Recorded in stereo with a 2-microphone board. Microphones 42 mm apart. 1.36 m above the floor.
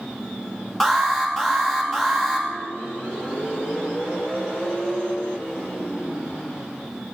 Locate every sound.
0.8 s an alarm: 5° left (ahead or behind), 3 m